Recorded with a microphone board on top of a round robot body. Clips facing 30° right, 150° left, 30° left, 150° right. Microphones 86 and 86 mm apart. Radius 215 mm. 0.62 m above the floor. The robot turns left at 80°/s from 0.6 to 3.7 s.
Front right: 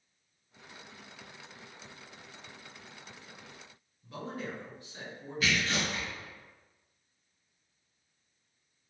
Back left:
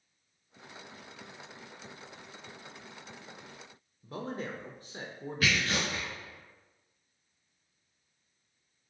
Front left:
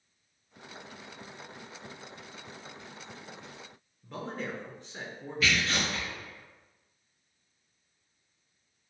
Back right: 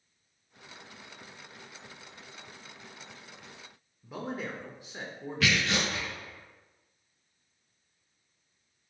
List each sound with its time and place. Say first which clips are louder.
4.0 s a man speaking: back left 2 dB, back right 1 dB; 130° left, 0.6 m
5.4 s tearing paper: even, back right 1 dB; 170° right, 1.4 m